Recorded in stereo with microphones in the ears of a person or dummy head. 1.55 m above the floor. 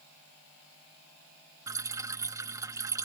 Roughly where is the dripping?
Centre.